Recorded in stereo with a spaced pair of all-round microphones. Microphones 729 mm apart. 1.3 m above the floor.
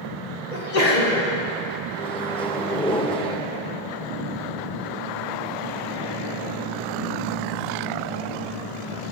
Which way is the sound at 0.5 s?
80° left.